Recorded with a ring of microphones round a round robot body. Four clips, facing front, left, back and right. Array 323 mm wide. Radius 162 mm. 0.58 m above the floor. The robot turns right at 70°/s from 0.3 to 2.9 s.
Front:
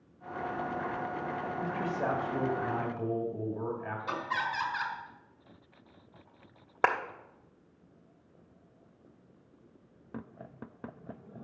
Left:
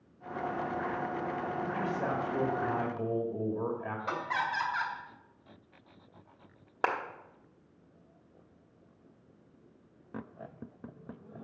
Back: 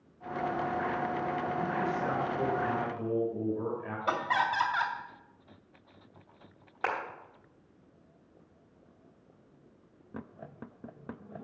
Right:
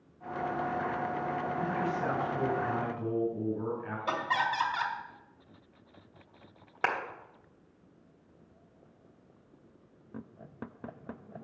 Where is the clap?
20° left, 1.2 m.